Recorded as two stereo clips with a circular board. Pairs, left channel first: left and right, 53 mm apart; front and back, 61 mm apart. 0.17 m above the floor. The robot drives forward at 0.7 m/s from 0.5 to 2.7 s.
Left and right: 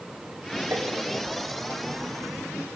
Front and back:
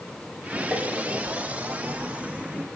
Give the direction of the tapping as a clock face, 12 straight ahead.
4 o'clock.